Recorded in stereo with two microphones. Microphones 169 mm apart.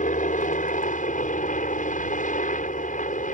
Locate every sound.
0.0 s a helicopter: 50° left (ahead or behind)